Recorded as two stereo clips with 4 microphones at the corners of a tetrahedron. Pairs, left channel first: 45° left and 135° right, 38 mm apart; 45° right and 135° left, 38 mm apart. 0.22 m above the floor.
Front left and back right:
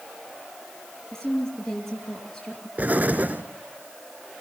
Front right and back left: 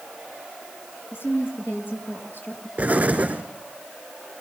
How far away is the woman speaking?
About 4.5 m.